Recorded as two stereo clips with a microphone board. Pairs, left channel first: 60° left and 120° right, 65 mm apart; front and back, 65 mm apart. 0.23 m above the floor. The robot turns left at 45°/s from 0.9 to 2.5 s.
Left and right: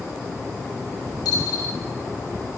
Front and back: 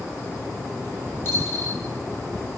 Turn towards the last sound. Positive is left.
turn(degrees=0)